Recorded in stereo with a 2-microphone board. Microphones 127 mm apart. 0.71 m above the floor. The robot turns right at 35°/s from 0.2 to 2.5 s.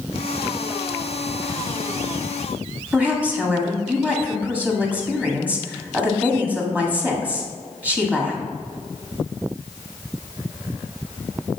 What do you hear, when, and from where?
2.9 s a woman speaking: 10° right (ahead or behind), 1.6 m